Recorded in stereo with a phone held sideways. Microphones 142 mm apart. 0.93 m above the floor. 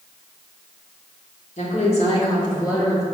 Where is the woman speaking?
60° left (ahead or behind), 2 m; by 3.0 s 20° left (ahead or behind), 2.5 m.